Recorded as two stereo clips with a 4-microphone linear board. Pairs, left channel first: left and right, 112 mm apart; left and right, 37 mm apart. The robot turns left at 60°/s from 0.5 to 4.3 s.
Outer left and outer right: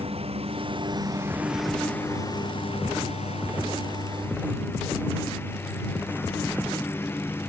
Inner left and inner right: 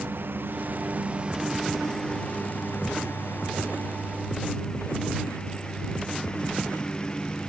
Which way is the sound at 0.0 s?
110° right.